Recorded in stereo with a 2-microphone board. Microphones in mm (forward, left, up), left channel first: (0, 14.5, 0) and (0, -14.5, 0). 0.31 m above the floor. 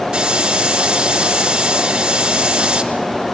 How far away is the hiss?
About 2.5 m.